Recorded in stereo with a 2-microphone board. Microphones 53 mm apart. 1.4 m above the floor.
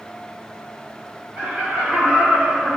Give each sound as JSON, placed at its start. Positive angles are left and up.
{"t": 1.4, "sound": "laughter", "side_deg": -30, "distance_m": 3.0}